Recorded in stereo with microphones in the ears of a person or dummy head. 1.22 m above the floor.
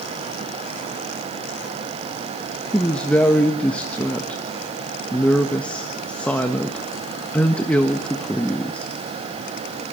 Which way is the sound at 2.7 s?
5° left (ahead or behind).